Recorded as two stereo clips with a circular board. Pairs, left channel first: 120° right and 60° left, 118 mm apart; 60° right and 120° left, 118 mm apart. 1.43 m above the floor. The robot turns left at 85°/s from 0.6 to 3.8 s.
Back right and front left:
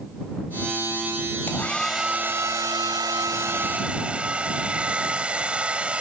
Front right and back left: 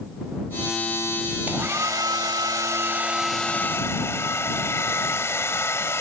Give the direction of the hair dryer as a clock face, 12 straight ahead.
6 o'clock.